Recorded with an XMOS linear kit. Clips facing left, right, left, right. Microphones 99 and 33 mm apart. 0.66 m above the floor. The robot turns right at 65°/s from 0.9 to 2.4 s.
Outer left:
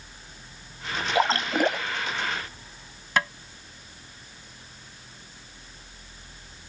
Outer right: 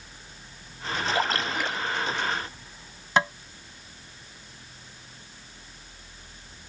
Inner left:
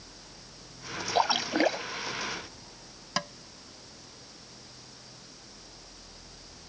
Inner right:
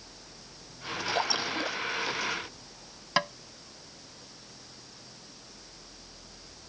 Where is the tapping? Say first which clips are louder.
Outer right 3 dB, inner right 5 dB; 25° right (ahead or behind).